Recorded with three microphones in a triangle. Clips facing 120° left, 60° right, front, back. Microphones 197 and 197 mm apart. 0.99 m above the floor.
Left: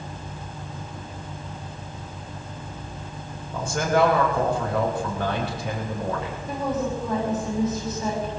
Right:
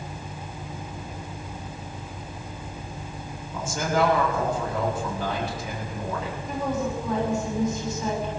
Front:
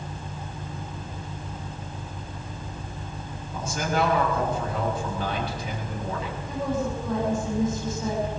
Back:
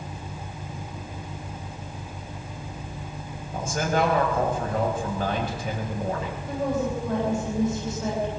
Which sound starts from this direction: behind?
A woman speaking, at 6.5 s.